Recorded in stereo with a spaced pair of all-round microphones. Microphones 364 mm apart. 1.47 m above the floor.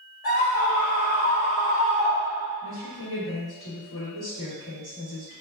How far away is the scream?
About 1.7 m.